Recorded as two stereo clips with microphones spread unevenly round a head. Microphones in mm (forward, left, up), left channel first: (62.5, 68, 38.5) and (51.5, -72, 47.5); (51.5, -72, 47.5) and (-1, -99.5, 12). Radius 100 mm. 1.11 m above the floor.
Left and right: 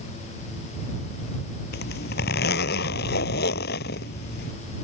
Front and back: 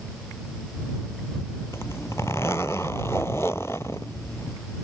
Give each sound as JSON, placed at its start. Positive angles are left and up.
{"t": 1.7, "sound": "a zipper", "azimuth_deg": 95}